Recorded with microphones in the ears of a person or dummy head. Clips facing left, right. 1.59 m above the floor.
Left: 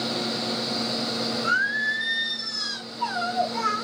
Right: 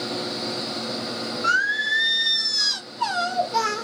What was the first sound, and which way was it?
Singing, 75° right (ahead or behind).